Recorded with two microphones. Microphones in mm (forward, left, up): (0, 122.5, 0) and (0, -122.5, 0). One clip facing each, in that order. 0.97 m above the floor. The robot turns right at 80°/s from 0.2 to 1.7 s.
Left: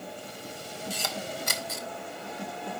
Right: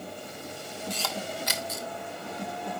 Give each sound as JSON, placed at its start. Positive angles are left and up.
{"t": 0.9, "sound": "a camera shutter", "side_deg": 5, "distance_m": 0.9}